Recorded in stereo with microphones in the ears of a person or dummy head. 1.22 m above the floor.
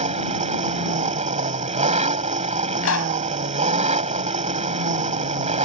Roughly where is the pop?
Left.